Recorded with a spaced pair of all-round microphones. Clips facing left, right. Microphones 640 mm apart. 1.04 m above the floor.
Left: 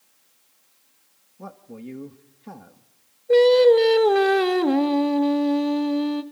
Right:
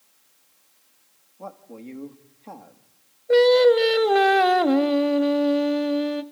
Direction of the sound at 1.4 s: 40° left (ahead or behind).